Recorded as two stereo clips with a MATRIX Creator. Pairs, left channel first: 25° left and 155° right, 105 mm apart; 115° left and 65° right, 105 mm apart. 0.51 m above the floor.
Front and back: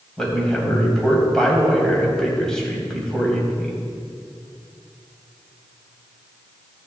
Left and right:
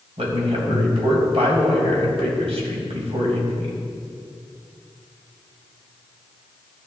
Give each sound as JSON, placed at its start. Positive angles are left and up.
{"t": 0.2, "sound": "a man speaking", "azimuth_deg": -60, "distance_m": 3.0}